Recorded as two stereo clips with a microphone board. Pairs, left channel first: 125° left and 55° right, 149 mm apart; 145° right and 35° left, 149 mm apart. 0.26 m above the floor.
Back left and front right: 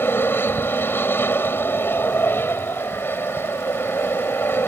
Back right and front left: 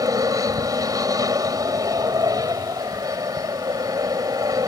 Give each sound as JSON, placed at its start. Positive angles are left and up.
{"t": 0.0, "sound": "an aircraft", "azimuth_deg": 65}